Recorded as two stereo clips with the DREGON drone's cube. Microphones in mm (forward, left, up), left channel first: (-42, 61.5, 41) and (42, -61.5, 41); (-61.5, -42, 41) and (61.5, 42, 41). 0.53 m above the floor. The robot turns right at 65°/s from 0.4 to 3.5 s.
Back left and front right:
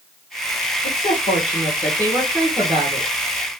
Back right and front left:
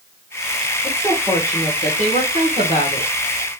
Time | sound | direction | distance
0.8 | a woman speaking | 115° left | 1.8 m